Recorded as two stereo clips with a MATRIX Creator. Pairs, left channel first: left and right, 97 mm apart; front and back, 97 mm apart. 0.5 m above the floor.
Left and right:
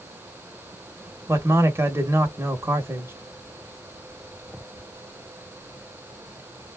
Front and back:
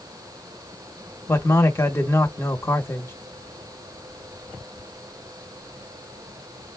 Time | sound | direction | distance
1.3 | a man speaking | 50° right | 0.8 m